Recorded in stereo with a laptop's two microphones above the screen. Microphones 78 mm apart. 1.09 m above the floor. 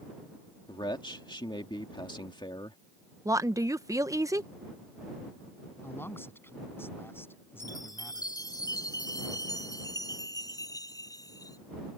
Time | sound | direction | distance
0.7 | a man speaking | 75° left (ahead or behind) | ?
3.2 | a woman speaking | 45° right (ahead or behind) | ?
5.8 | a man speaking | 30° left (ahead or behind) | ?
7.6 | a chime | 50° left (ahead or behind) | ?